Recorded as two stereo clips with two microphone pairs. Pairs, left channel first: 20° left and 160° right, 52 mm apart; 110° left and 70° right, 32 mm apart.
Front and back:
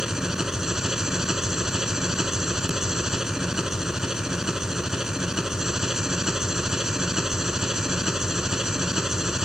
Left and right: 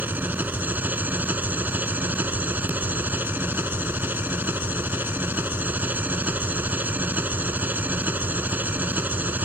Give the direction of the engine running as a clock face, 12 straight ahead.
3 o'clock.